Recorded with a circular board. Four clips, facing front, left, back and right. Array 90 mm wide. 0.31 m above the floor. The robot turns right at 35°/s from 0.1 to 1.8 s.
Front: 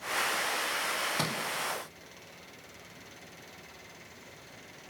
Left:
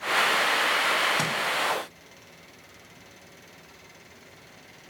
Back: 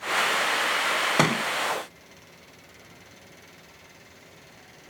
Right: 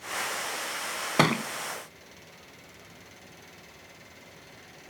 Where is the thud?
140° right, 0.6 m; by 1.4 s 130° right, 0.6 m.